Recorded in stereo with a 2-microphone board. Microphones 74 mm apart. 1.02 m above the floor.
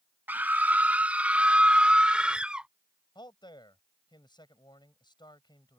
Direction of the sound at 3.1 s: 85° left.